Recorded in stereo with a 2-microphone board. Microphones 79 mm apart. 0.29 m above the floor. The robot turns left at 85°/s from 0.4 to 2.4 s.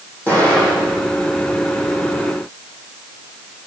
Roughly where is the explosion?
Ahead.